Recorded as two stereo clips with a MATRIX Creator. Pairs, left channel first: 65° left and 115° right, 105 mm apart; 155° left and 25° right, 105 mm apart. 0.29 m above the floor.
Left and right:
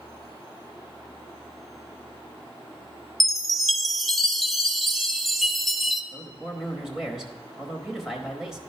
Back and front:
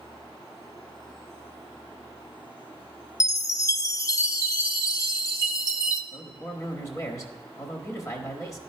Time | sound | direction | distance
3.2 | a chime | 155° left | 0.6 m
6.1 | a man speaking | 165° left | 1.1 m